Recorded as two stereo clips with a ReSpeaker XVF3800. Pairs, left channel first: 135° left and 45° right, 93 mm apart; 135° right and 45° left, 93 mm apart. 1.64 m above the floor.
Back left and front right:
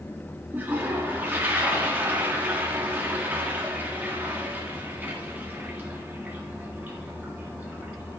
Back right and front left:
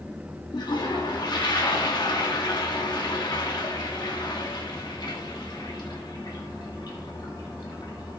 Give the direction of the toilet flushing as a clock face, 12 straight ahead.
4 o'clock.